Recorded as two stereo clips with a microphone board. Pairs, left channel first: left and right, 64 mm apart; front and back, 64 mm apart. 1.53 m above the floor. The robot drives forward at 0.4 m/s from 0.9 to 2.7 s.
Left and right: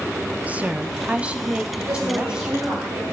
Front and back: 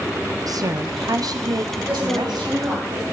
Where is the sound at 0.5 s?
155° right, 0.8 m; by 2.9 s 170° right, 1.5 m.